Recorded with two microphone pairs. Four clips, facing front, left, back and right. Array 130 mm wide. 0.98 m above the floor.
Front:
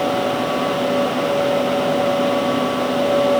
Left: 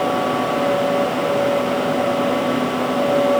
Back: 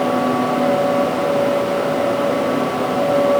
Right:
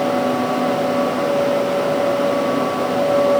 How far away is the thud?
I don't hear a thud.